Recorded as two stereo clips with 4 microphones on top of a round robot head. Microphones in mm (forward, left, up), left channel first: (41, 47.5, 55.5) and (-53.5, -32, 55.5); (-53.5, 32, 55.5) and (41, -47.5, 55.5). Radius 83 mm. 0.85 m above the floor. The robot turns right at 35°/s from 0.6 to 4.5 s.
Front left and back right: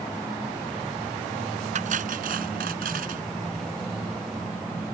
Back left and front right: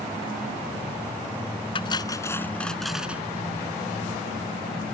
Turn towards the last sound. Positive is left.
turn(degrees=-75)